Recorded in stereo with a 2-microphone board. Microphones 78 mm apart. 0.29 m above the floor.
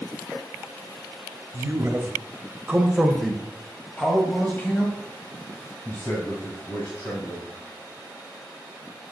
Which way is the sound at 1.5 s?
35° right (ahead or behind).